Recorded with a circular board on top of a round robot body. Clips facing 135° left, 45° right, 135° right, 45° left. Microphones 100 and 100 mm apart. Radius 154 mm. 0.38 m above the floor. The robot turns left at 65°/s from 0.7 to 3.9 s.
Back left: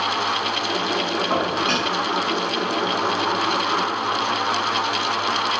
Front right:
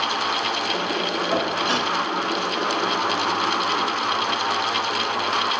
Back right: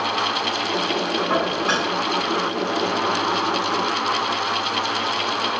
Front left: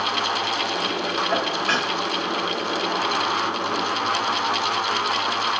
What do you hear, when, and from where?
1.3 s dishes clattering: straight behind, 3.5 m; by 1.9 s 140° left, 3.5 m